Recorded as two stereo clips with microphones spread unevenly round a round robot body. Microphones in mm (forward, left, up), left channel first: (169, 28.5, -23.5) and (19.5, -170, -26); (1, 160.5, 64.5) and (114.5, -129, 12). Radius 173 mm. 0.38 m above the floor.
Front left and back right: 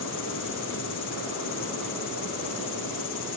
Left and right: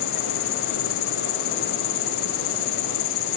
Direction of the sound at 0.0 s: 110° left.